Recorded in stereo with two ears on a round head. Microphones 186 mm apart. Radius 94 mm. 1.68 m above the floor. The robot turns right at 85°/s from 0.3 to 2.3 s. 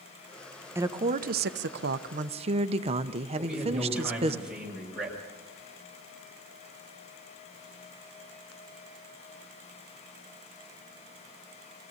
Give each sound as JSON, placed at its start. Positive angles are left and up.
{"t": 0.8, "sound": "a woman speaking", "azimuth_deg": -165, "distance_m": 0.8}
{"t": 3.4, "sound": "a man speaking", "side_deg": -5, "distance_m": 7.0}